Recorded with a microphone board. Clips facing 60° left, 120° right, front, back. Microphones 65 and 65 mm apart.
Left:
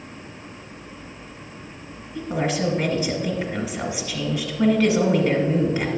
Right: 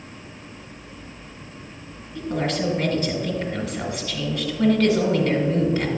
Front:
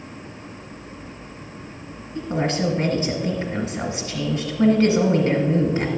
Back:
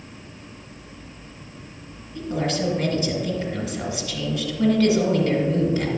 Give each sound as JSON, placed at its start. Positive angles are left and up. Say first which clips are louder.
{"t": 2.1, "sound": "a woman speaking", "louder": "left 1 dB, front 2 dB", "azimuth_deg": 0, "distance_m": 1.8}